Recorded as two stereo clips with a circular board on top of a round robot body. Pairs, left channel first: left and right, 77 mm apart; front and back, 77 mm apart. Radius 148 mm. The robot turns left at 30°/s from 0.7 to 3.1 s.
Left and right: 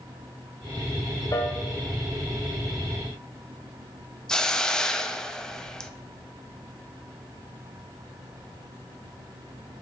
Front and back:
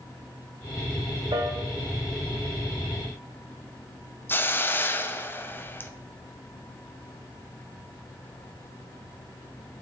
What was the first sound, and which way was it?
A piano, 145° left.